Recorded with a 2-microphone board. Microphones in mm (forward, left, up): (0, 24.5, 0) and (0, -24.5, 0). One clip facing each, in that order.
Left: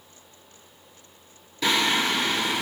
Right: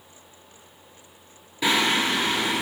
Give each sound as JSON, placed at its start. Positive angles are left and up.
{"t": 1.6, "sound": "singing", "side_deg": -15, "distance_m": 3.0}